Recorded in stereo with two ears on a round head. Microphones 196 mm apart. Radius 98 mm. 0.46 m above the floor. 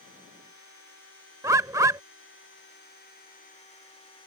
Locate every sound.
1.4 s a bird: 15° right (ahead or behind)